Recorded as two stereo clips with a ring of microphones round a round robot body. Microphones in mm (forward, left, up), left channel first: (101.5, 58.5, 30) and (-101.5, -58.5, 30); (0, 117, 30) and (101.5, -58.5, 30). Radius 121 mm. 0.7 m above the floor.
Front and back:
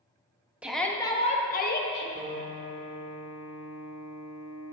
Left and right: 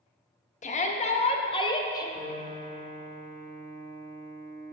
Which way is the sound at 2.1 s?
125° right.